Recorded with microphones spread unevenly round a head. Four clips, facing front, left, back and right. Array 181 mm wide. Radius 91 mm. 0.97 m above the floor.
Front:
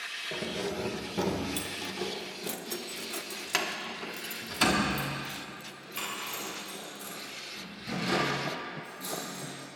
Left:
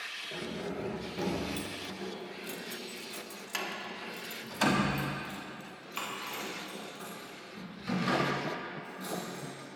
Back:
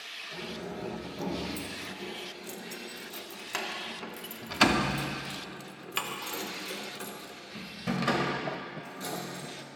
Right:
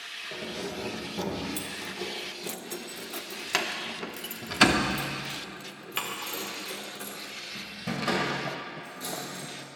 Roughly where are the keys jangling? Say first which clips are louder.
Right 2 dB, front 5 dB; ahead.